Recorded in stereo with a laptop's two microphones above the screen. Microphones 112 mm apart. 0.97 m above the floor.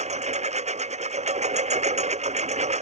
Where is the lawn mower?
85° right.